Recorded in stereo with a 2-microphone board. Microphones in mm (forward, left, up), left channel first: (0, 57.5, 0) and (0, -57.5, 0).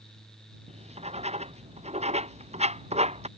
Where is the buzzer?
No buzzer in this recording.